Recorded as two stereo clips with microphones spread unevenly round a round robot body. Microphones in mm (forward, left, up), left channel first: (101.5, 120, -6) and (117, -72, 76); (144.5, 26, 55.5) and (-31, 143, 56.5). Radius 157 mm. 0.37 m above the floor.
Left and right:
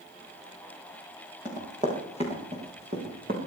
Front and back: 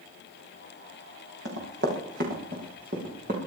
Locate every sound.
1.4 s running footsteps: 160° right, 6 m; by 3.4 s 150° right, 6.5 m